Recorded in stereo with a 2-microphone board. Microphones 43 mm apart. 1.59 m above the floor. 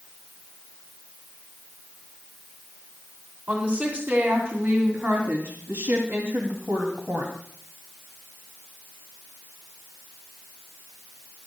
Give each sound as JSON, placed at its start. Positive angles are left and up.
{"t": 3.5, "sound": "a woman speaking", "side_deg": -40, "distance_m": 4.0}